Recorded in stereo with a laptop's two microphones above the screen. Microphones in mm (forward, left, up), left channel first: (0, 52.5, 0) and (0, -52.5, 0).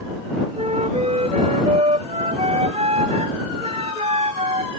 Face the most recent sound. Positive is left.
turn(degrees=-70)  # may be behind; listen again after turning